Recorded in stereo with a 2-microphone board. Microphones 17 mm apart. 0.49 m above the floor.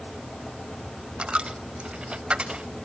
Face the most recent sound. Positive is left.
turn(degrees=-85)